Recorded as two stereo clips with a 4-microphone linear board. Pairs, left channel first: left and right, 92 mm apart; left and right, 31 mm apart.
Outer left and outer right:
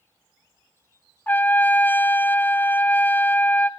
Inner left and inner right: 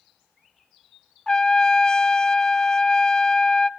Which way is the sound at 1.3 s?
20° left (ahead or behind).